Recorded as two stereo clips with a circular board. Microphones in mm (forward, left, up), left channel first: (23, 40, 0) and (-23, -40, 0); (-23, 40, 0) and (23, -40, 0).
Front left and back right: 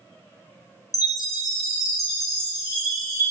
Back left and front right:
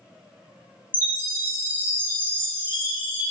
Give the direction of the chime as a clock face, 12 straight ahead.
12 o'clock.